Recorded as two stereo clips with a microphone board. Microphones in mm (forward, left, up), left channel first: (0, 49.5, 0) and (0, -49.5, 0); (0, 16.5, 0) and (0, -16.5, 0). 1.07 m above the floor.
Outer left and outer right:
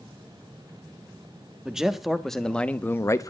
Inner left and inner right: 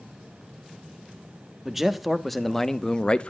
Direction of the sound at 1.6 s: 5° right (ahead or behind).